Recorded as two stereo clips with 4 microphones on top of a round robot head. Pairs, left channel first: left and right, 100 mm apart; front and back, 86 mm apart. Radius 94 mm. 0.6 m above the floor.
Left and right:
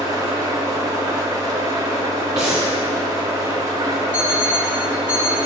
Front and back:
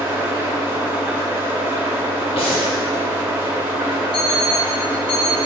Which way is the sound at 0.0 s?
125° right.